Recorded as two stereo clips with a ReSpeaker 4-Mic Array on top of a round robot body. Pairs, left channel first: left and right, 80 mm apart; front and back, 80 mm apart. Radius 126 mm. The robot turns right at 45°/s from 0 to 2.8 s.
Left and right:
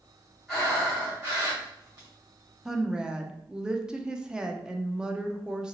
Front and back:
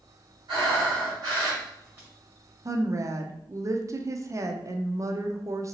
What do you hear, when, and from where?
0.5 s breathing: 175° left, 1.9 m; by 2.1 s 110° right, 1.9 m
2.6 s a woman speaking: 170° right, 0.6 m; by 5.8 s 165° right, 0.6 m